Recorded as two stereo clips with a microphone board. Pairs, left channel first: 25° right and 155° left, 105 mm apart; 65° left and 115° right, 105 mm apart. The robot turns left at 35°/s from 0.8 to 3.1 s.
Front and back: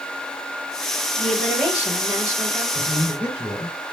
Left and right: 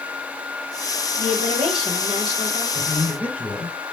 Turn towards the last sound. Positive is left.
turn(degrees=175)